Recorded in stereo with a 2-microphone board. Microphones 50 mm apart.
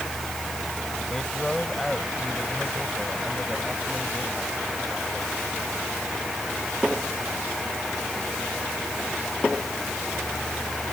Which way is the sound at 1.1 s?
10° left (ahead or behind).